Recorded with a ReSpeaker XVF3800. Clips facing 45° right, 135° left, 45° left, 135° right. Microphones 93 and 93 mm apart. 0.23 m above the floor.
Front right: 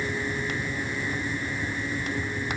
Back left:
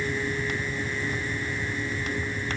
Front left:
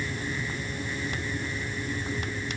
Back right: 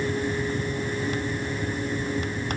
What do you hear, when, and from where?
Only background noise.